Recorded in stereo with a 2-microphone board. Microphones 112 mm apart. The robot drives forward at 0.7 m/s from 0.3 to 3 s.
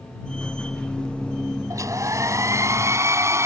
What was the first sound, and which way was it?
A hair dryer, 30° right (ahead or behind).